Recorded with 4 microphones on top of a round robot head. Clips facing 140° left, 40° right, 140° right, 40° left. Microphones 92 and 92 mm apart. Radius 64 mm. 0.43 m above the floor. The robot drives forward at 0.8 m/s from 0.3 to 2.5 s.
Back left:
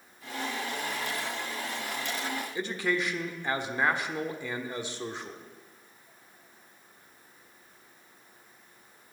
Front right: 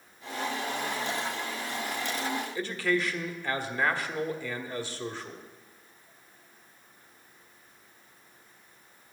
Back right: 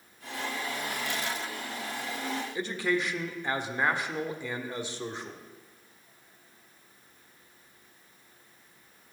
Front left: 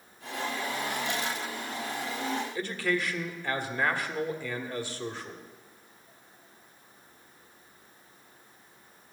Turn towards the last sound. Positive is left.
turn(degrees=180)